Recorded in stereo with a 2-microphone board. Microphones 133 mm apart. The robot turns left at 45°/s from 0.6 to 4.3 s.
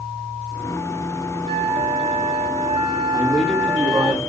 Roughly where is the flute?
Ahead right.